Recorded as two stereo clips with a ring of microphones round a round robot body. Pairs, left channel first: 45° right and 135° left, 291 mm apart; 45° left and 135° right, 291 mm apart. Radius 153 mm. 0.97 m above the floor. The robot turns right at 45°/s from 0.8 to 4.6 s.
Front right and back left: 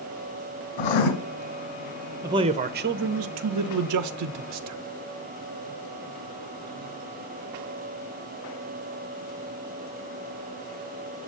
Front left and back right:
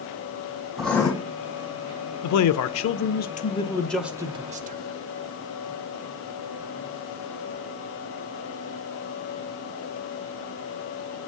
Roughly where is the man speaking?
Ahead left.